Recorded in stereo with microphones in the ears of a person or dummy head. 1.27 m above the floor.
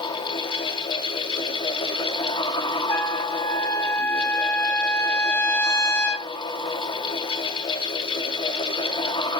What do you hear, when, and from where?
0.0 s a fan: 25° left (ahead or behind), 1.1 m
2.9 s a trumpet: 20° left (ahead or behind), 5 m